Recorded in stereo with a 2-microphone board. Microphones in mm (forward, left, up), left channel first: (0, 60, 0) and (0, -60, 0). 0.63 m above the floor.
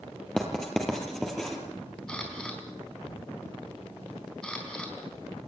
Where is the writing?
5° left (ahead or behind), 3.5 m.